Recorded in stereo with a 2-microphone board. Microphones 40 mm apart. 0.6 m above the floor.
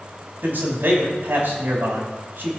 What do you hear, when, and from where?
0.4 s a man speaking: 55° right (ahead or behind), 3 m